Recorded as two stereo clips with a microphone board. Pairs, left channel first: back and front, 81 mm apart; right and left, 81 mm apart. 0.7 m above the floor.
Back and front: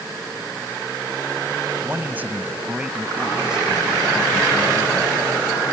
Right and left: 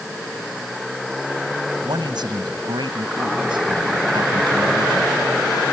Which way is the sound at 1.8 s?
65° left.